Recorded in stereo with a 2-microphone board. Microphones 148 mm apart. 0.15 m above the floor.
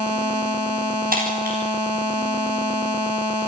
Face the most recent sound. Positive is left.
turn(degrees=-80)